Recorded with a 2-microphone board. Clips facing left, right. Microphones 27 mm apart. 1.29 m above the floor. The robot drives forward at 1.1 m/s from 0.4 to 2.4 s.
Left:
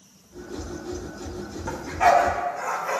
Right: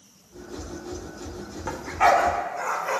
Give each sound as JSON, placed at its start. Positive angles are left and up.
{"t": 1.7, "sound": "a dog barking", "side_deg": -25, "distance_m": 1.0}